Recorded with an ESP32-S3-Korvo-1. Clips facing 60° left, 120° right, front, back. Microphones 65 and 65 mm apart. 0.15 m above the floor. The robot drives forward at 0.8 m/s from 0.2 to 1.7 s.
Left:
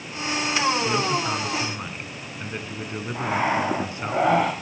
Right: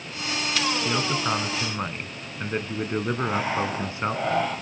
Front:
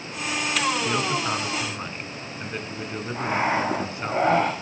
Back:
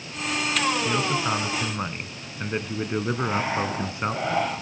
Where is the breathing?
45° left, 7 m.